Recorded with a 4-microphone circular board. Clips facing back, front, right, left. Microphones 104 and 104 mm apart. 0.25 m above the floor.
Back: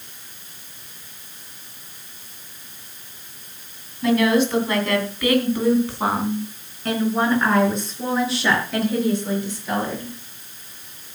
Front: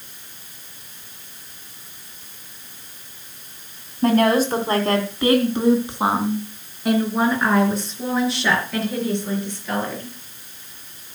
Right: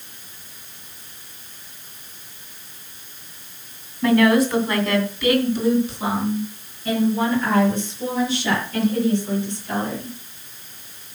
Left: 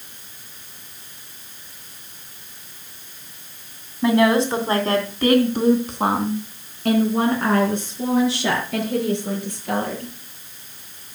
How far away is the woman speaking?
About 2.5 m.